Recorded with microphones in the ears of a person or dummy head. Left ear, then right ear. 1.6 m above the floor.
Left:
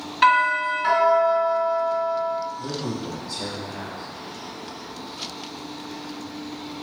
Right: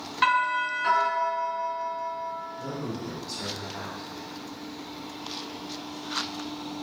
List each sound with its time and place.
0.2 s a doorbell: 5° right (ahead or behind), 1.8 m
2.6 s a man speaking: 65° right (ahead or behind), 1.5 m